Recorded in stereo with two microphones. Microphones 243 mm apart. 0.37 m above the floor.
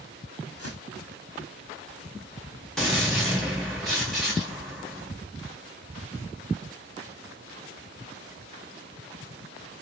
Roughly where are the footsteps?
Left.